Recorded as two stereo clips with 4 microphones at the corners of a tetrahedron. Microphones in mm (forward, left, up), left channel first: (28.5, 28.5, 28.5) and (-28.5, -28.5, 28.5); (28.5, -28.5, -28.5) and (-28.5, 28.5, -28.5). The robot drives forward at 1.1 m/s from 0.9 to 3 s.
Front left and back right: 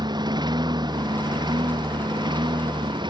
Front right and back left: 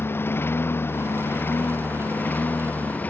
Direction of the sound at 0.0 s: 110° right.